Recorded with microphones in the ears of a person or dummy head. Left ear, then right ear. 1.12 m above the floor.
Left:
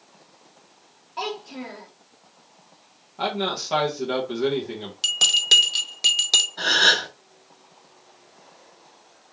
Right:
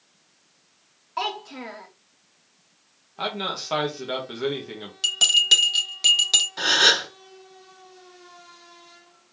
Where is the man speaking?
35° right (ahead or behind), 1.2 m.